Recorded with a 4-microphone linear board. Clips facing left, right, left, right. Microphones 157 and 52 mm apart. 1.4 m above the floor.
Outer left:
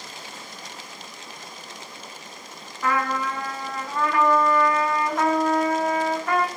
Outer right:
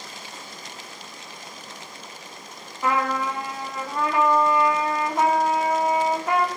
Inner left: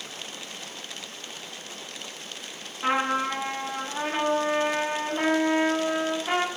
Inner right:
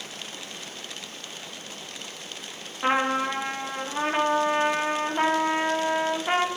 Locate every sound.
2.8 s a trumpet: 20° right (ahead or behind), 0.8 m